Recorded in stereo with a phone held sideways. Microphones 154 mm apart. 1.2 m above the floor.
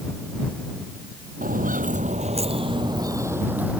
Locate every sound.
1.4 s footsteps: 65° right (ahead or behind); by 3.8 s 5° right (ahead or behind)